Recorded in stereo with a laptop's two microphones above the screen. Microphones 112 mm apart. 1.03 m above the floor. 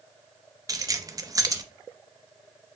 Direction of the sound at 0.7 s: 35° right (ahead or behind).